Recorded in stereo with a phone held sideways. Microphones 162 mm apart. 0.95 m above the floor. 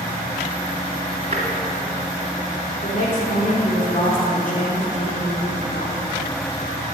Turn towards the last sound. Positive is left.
turn(degrees=50)  # may be behind; listen again after turning